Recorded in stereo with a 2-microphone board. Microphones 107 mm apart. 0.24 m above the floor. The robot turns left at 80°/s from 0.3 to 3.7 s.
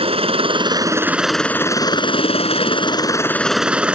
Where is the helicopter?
100° right; by 4.0 s 10° right.